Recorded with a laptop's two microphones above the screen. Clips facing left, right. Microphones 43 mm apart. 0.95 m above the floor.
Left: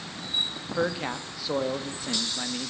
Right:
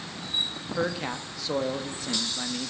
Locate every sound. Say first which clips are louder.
0.6 s a man speaking: left 2 dB; 5° left (ahead or behind), 1.2 m